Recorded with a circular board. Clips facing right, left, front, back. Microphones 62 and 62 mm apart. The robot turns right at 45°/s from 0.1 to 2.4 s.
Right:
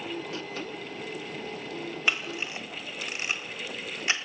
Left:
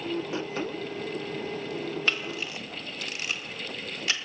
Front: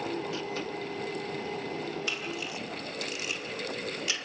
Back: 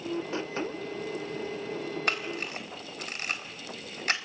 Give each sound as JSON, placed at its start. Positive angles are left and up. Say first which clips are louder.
{"t": 2.1, "sound": "a camera shutter", "louder": "even, back 3 dB", "azimuth_deg": -165, "distance_m": 1.5}